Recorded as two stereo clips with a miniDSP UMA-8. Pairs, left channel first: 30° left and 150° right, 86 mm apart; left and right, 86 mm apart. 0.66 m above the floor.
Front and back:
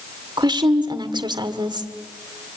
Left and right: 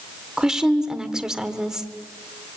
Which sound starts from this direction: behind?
A woman speaking, at 0.4 s.